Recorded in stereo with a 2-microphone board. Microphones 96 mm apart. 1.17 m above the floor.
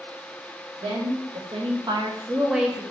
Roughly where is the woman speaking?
Right.